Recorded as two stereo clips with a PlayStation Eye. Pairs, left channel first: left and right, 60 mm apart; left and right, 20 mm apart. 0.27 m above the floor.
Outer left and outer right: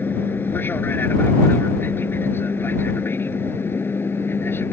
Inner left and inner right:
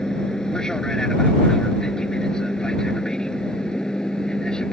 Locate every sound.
0.0 s an aircraft: 35° left (ahead or behind); by 4.7 s 40° left (ahead or behind)